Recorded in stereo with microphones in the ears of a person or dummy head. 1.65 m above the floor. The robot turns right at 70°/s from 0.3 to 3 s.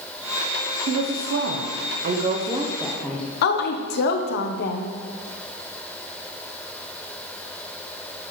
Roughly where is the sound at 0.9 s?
Behind right.